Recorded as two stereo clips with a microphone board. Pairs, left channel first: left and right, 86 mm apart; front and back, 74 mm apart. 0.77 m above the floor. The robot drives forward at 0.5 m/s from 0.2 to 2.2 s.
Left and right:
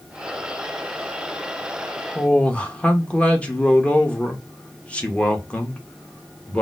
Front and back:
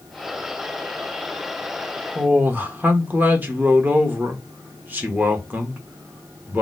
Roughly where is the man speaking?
Behind left.